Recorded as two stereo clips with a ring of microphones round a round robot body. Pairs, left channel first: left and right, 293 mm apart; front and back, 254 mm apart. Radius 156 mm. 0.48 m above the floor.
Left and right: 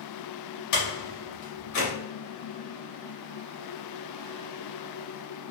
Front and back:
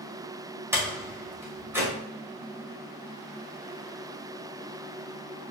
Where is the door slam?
100° left, 2 m.